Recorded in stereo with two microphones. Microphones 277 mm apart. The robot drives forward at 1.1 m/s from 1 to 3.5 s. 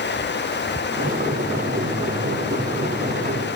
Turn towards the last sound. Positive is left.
No sound to turn to.